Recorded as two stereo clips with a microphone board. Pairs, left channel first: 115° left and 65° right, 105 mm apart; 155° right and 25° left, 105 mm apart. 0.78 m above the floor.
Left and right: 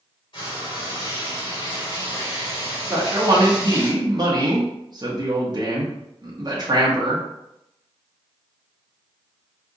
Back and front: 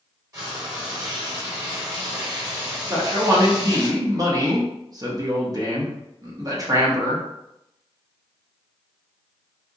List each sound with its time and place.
0.3 s frying: 75° left, 1.8 m
2.9 s a man speaking: 25° right, 1.1 m